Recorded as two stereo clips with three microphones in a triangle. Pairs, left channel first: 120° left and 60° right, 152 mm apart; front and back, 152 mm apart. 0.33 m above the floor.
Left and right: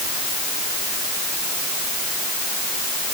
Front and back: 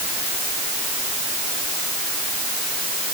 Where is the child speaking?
I don't hear a child speaking.